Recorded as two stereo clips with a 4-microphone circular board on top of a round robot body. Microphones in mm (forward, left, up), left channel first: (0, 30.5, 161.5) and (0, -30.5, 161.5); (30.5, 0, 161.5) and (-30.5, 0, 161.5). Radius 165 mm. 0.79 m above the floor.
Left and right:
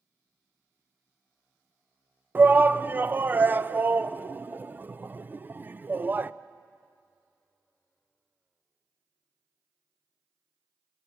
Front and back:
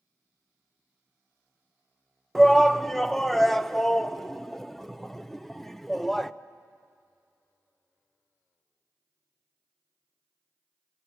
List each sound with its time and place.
2.4 s a shout: 80° right, 0.8 m